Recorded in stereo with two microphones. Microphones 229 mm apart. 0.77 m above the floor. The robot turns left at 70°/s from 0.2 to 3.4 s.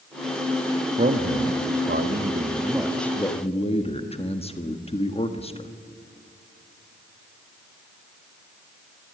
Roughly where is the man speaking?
Ahead right.